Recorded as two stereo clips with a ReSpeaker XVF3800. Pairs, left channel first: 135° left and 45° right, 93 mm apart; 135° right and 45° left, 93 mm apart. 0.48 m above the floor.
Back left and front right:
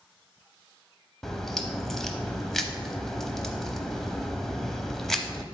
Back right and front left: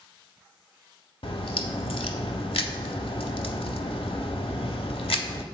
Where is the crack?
140° right, 0.6 m.